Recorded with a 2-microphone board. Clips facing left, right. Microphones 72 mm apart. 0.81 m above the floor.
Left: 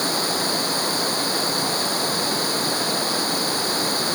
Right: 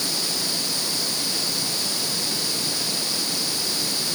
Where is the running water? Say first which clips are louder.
Left 7 dB; 45° left (ahead or behind).